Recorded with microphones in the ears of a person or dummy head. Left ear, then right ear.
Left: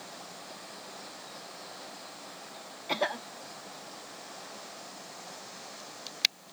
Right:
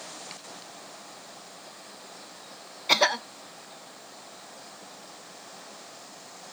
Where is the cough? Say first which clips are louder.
Right 9 dB; 50° right (ahead or behind).